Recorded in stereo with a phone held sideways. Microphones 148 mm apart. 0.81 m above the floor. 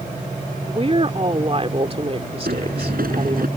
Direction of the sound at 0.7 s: 40° right (ahead or behind).